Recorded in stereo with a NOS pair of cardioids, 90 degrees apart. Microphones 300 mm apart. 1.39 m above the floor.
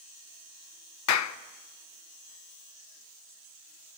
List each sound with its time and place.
1.1 s a clap: 65° left, 1.0 m